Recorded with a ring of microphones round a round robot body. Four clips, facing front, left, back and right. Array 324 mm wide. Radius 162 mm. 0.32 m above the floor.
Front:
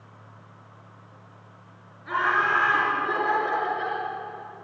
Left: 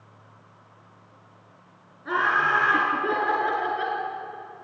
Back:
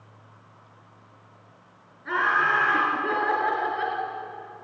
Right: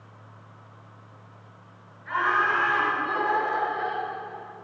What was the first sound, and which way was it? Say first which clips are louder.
Laughter: left 1 dB, even; 95° left.